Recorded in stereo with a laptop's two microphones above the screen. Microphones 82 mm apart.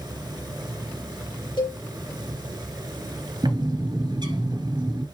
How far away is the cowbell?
About 4.5 m.